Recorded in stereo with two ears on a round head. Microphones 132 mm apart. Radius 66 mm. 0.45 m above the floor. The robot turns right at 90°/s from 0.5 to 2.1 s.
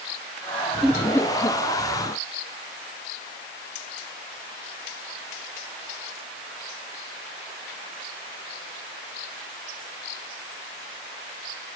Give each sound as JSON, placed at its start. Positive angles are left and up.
{"t": 0.8, "sound": "laughter", "side_deg": 0, "distance_m": 0.9}